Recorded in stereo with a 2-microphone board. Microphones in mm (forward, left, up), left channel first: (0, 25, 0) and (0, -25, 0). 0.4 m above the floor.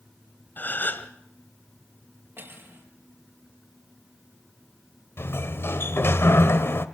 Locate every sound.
0.6 s a gasp: 40° left (ahead or behind), 1.4 m
2.4 s cutlery clinking: 50° right (ahead or behind), 6 m
5.2 s a sliding door: 55° left (ahead or behind), 1.2 m